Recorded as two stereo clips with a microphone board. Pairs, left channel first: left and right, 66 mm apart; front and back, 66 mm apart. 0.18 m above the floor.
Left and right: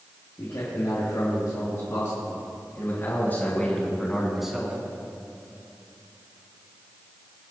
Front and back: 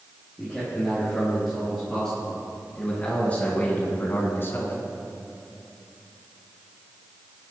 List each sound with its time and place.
0.4 s a man speaking: 90° left, 4 m; by 4.8 s 20° right, 2.0 m